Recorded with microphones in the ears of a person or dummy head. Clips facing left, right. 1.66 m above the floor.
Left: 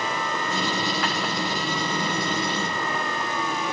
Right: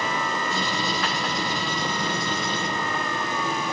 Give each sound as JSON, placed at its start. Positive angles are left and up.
{"t": 0.5, "sound": "writing", "side_deg": 65, "distance_m": 4.0}